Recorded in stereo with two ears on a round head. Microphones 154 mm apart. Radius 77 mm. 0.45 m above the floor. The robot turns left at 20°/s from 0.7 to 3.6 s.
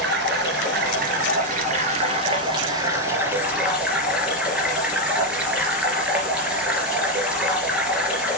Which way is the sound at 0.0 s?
115° right.